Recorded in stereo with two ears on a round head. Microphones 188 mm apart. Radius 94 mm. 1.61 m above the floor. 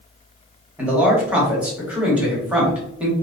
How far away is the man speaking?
About 0.9 m.